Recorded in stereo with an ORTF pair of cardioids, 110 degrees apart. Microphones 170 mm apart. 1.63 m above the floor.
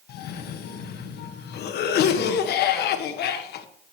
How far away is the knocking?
No knocking in this recording.